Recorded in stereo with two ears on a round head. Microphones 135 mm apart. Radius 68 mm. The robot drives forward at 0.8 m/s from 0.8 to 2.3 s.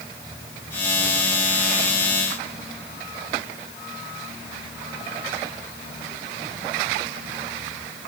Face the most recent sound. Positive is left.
No sound to turn to.